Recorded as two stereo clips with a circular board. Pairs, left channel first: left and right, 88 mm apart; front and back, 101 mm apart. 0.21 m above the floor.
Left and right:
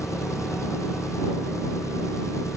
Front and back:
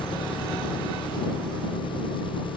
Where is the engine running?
35° left.